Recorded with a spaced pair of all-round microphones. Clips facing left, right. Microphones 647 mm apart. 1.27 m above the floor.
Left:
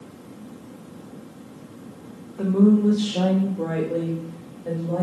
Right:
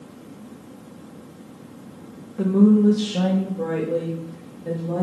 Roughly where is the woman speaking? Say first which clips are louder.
Right 2 dB; right.